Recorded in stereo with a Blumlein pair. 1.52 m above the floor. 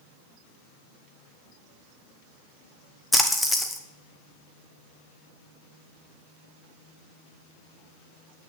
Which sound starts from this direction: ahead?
A splash, at 3.1 s.